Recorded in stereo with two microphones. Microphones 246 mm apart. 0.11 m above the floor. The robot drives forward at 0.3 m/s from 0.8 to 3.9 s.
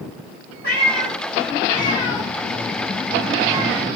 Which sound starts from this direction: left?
A cat meowing, at 0.6 s.